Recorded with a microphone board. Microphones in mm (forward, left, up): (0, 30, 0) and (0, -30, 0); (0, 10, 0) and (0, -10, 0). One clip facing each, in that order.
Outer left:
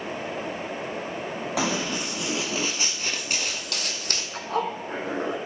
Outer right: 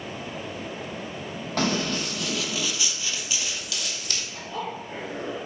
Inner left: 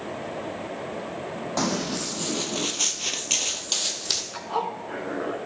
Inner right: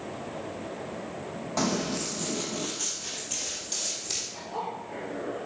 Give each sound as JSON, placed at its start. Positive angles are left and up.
{"t": 1.6, "sound": "running footsteps", "side_deg": 10, "distance_m": 1.5}
{"t": 4.3, "sound": "a zipper", "side_deg": 80, "distance_m": 1.7}